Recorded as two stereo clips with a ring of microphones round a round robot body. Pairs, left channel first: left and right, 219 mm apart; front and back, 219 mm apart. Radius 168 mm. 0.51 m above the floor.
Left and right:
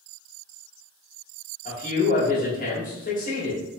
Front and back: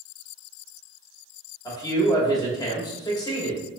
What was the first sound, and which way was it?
A man speaking, 65° left.